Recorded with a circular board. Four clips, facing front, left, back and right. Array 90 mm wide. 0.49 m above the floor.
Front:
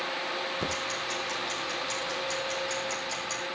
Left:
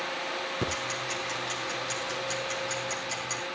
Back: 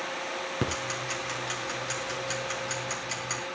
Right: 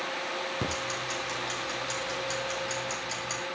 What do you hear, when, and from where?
0.6 s ticking: straight behind, 5.5 m